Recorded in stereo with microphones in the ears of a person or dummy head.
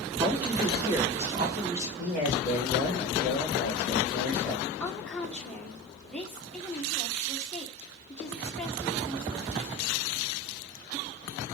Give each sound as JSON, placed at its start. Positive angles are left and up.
{"t": 0.2, "sound": "a man speaking", "side_deg": -20, "distance_m": 3.5}
{"t": 2.0, "sound": "a man speaking", "side_deg": 0, "distance_m": 3.0}
{"t": 4.8, "sound": "a woman speaking", "side_deg": 5, "distance_m": 1.4}